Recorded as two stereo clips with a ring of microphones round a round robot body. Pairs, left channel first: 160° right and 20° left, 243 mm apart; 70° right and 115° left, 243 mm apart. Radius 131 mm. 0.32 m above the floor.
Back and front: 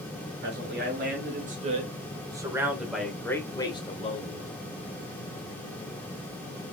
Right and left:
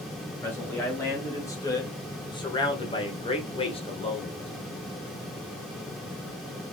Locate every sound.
0.4 s a man speaking: 10° left, 1.8 m; by 4.5 s 120° right, 1.5 m